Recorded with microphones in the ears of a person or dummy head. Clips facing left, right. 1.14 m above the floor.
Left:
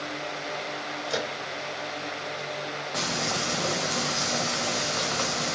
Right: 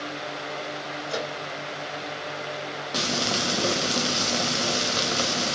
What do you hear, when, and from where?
1.1 s a microwave: 10° left (ahead or behind), 3 m
2.9 s frying: 45° right (ahead or behind), 0.9 m